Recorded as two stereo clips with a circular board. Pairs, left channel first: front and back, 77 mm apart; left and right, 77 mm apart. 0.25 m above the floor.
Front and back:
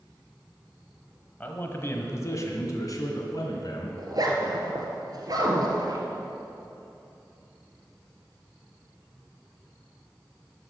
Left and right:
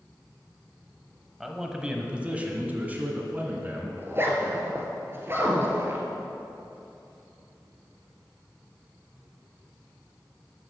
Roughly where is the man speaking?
Ahead.